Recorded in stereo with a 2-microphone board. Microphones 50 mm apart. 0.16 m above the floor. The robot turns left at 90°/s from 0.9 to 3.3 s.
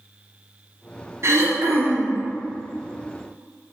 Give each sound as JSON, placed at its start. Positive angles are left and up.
{"t": 1.2, "sound": "throat clearing", "azimuth_deg": -80, "distance_m": 1.1}